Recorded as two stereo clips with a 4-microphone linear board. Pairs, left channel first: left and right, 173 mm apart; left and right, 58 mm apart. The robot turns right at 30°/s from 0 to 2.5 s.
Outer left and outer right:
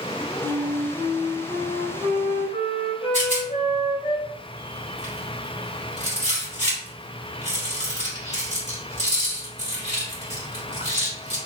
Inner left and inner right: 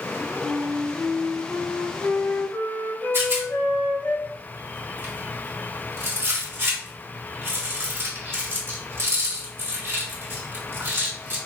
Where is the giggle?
I don't hear a giggle.